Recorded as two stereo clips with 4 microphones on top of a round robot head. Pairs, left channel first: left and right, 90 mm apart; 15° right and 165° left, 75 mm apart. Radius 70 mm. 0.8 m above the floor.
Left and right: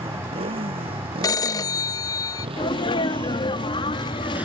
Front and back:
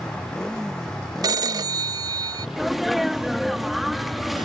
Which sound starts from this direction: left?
A sneeze, at 2.6 s.